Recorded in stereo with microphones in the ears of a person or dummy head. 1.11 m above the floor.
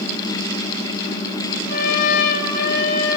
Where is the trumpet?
60° left (ahead or behind), 8 m.